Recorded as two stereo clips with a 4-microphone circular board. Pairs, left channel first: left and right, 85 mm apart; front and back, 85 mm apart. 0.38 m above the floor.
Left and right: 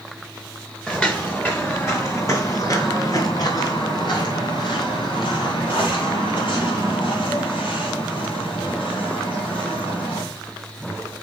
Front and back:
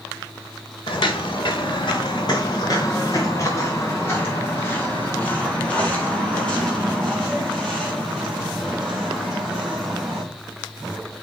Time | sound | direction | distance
0.9 | footsteps | 15° left | 2.5 m